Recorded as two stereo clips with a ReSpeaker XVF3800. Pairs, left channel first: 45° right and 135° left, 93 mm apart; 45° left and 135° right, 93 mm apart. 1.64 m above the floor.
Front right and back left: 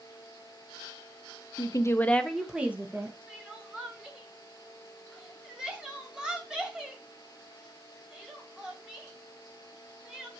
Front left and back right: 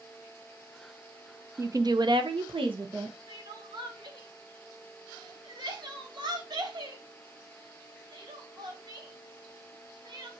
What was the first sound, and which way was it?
A woman speaking, 80° right.